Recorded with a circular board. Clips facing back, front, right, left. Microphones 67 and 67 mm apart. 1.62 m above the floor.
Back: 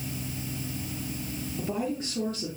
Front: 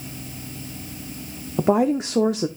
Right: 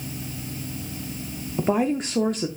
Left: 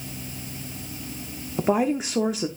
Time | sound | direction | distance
1.6 | a woman speaking | 5° left | 0.6 m